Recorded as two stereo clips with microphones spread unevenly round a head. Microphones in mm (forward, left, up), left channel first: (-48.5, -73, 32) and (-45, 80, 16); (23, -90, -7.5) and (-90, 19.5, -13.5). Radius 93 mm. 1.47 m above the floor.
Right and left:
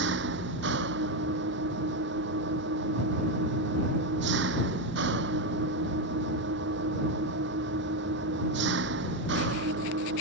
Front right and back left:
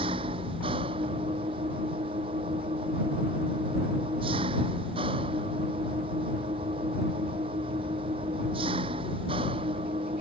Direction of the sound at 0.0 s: 70° left.